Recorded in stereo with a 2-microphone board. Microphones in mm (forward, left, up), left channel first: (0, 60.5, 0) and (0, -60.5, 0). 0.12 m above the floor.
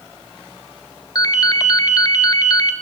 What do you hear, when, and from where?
1.1 s a ringtone: 35° left (ahead or behind), 0.7 m